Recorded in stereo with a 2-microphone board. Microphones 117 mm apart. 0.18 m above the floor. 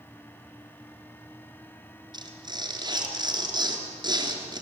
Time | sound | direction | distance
2.1 | tearing paper | 40° right (ahead or behind) | 3 m